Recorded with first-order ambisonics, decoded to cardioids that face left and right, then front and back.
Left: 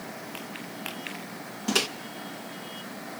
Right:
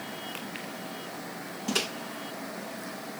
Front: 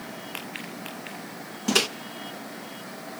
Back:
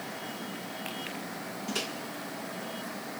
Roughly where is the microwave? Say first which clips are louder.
Left 4 dB, front 12 dB; ahead.